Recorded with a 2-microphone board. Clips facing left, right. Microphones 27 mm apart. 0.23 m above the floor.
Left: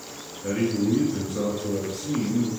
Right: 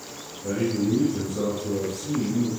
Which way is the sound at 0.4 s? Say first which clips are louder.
Left 1 dB; 50° left (ahead or behind).